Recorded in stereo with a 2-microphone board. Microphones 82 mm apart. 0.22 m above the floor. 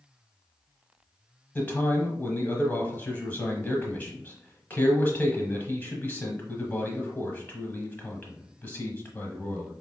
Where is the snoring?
I don't hear snoring.